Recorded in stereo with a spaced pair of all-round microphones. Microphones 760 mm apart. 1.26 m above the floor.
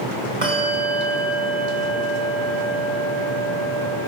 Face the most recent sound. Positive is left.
turn(degrees=-65)  # may be behind; listen again after turning